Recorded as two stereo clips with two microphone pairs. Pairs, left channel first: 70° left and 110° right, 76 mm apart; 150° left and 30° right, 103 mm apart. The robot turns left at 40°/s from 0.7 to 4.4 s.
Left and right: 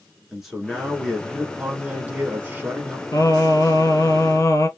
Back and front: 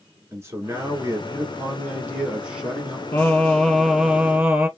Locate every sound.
0.3 s a man speaking: 30° right, 1.1 m; by 3.0 s 120° right, 1.1 m
3.1 s singing: 95° left, 1.4 m; by 4.7 s 40° left, 1.4 m